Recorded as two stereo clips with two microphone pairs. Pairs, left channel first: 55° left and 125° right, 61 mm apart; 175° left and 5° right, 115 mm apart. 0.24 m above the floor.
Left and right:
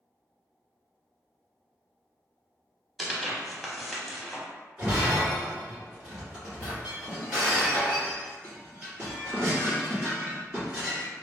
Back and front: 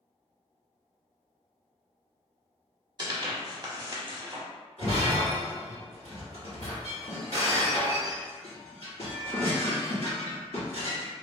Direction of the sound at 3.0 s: 35° right.